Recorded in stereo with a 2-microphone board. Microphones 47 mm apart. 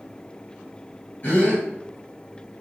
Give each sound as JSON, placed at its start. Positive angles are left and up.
{"t": 1.2, "sound": "a gasp", "side_deg": 45, "distance_m": 1.9}